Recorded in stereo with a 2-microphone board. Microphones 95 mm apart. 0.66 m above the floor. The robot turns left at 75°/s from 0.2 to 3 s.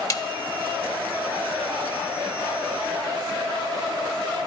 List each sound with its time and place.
0.1 s a snare drum: 35° left (ahead or behind), 0.7 m